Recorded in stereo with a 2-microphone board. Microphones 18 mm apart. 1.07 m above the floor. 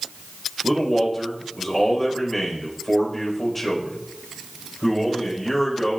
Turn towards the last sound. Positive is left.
turn(degrees=20)  # may be behind; listen again after turning